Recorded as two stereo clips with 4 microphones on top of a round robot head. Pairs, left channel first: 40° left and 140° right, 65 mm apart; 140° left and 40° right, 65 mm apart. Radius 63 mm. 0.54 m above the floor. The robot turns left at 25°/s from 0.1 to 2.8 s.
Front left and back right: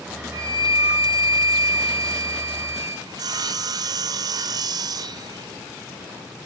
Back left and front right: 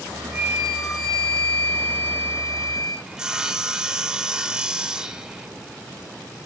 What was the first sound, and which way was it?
A flute, 115° right.